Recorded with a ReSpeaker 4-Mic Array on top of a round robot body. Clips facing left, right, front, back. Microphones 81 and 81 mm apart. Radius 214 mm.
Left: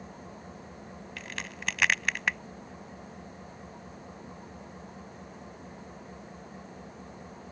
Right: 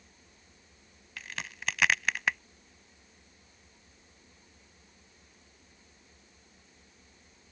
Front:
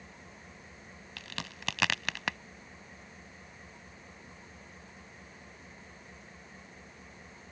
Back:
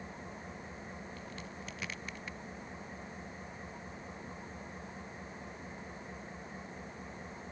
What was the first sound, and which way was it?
An engine running, 115° left.